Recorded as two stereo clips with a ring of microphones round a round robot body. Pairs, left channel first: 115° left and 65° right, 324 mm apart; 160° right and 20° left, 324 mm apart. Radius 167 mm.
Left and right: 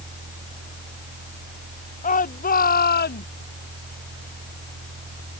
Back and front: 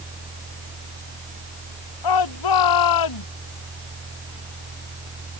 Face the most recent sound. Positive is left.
turn(degrees=175)